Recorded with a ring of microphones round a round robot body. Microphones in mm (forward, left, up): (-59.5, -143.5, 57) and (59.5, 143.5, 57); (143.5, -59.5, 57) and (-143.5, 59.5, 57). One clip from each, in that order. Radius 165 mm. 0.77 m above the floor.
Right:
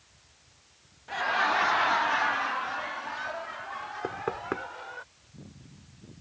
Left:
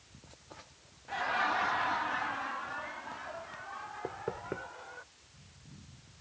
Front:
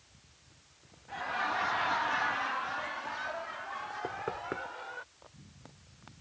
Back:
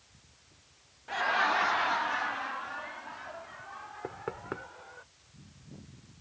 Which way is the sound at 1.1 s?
Straight behind.